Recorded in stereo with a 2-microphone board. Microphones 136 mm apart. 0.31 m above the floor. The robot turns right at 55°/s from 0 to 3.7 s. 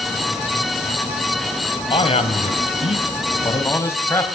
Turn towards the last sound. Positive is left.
turn(degrees=155)